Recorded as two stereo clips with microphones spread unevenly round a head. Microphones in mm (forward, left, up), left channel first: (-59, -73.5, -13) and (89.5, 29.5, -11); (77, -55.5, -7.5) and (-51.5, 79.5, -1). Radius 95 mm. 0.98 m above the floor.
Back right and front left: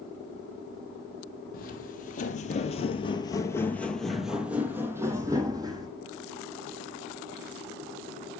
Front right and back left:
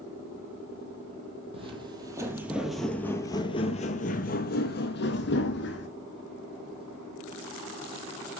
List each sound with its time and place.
1.5 s footsteps: 170° right, 1.5 m; by 5.9 s 30° right, 2 m